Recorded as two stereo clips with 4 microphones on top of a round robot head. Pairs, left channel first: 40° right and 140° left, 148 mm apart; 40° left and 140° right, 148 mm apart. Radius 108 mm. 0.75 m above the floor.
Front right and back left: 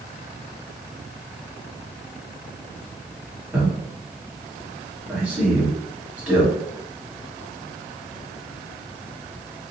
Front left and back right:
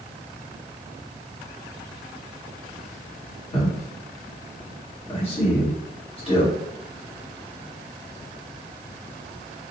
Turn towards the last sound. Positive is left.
turn(degrees=65)